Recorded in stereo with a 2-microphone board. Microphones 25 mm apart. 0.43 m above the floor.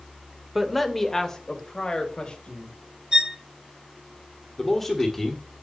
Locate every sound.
0.6 s a man speaking: 5° right (ahead or behind), 1.2 m; by 2.7 s 45° left (ahead or behind), 2.5 m
3.1 s a violin: 30° right (ahead or behind), 2 m
4.6 s a man speaking: 15° left (ahead or behind), 1.5 m